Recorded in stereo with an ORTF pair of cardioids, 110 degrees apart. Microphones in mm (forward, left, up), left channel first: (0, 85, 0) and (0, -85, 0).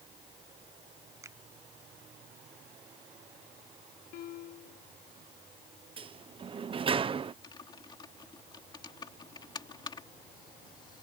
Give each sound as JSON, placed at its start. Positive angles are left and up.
{"t": 1.2, "sound": "a finger snap", "azimuth_deg": -15}
{"t": 4.1, "sound": "a piano", "azimuth_deg": 65}
{"t": 6.0, "sound": "a sliding door", "azimuth_deg": -35}
{"t": 7.4, "sound": "typing on a keyboard", "azimuth_deg": 25}